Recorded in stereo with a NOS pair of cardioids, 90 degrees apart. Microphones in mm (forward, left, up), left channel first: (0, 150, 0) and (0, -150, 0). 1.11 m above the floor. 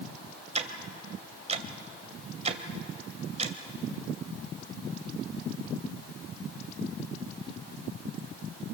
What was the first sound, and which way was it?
Ticking, 25° right.